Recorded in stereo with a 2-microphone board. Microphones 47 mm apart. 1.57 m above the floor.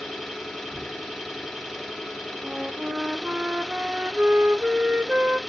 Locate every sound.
0.0 s an engine running: 5° right (ahead or behind), 1.3 m
2.4 s a flute: 25° right (ahead or behind), 0.6 m